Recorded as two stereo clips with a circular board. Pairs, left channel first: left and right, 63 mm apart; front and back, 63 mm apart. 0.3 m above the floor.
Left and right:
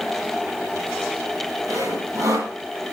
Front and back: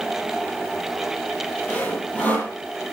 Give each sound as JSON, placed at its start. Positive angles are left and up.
{"t": 1.7, "sound": "sawing", "azimuth_deg": -65, "distance_m": 7.0}